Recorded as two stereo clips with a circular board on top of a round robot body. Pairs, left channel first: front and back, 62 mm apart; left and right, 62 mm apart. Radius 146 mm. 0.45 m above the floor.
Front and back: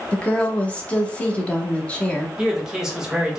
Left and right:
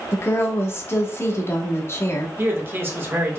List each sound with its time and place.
0.1 s a woman speaking: 65° left, 1.2 m
2.4 s a man speaking: 105° right, 1.5 m